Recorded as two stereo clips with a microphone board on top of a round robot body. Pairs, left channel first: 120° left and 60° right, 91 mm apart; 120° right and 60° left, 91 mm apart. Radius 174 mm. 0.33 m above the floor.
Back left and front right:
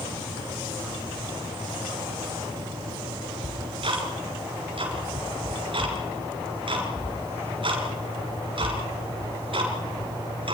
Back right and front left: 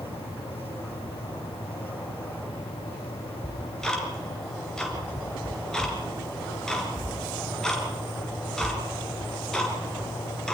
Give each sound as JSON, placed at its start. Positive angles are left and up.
{"t": 3.4, "sound": "ticking", "azimuth_deg": -35, "distance_m": 3.0}